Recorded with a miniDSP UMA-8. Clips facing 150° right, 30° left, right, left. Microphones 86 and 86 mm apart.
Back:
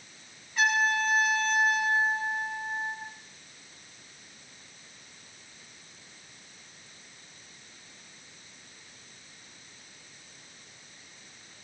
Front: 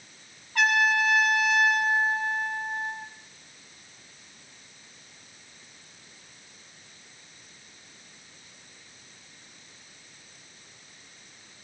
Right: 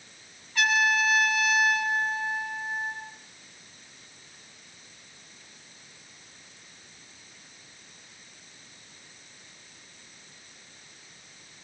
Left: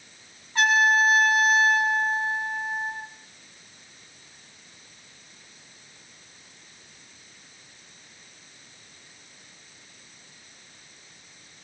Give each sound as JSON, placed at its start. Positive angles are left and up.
{"t": 0.6, "sound": "a trumpet", "azimuth_deg": 35, "distance_m": 7.0}